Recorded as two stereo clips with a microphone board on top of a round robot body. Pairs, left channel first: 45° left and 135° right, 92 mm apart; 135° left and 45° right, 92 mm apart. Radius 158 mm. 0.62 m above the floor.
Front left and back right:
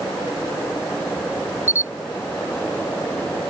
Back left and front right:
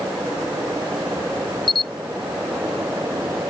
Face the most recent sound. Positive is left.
turn(degrees=155)